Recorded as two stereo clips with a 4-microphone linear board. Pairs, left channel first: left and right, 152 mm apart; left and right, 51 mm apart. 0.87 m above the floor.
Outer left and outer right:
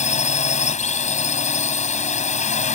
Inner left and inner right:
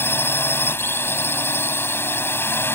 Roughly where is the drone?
Left.